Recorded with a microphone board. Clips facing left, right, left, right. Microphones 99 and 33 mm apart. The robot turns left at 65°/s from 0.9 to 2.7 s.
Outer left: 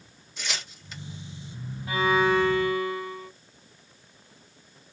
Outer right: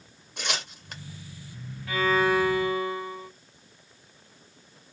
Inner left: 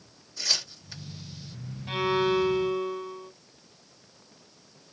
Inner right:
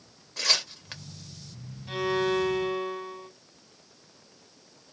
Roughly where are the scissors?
No scissors in this recording.